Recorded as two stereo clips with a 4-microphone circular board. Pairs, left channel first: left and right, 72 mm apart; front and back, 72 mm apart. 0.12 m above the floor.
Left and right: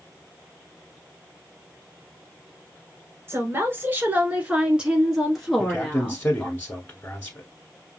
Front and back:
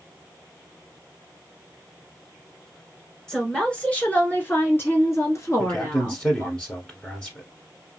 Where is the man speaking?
55° left, 1.2 m.